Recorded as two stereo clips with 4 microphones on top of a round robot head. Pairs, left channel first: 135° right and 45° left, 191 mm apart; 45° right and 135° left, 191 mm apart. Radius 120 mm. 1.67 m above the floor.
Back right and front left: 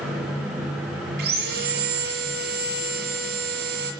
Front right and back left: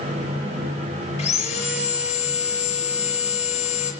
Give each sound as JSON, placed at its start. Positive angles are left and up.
{"t": 1.2, "sound": "sawing", "azimuth_deg": 10, "distance_m": 5.5}